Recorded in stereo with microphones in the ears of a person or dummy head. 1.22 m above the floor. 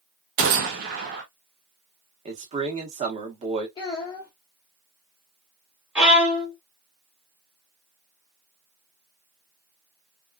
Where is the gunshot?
50° right (ahead or behind), 0.7 m.